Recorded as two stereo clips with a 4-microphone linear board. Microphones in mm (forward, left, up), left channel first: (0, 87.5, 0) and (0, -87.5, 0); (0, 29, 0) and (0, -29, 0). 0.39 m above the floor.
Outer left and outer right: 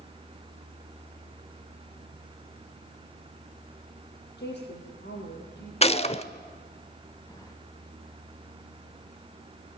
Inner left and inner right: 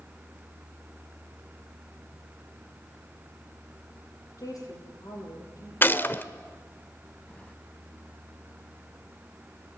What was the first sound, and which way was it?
A woman speaking, 80° left.